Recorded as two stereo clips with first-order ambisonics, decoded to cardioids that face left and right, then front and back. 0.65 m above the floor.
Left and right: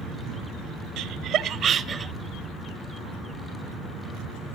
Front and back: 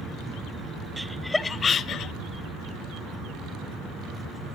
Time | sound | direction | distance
1.0 | laughter | 95° right | 0.9 m